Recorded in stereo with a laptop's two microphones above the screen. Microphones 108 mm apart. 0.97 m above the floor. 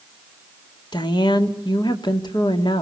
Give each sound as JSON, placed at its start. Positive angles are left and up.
{"t": 0.9, "sound": "a woman speaking", "side_deg": 40, "distance_m": 2.5}